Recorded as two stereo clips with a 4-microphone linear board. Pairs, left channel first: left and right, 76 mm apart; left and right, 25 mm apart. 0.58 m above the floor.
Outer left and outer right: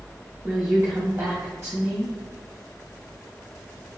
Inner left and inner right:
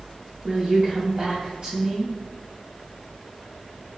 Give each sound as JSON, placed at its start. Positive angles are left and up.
{"t": 0.4, "sound": "a woman speaking", "side_deg": -40, "distance_m": 1.6}